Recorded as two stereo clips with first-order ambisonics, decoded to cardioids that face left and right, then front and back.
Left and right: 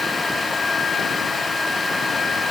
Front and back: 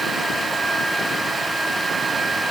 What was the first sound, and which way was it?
Only background noise.